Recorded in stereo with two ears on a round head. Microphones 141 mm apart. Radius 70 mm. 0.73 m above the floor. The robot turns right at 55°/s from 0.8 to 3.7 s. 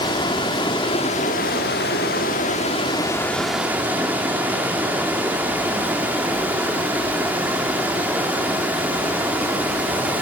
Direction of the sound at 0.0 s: 30° left.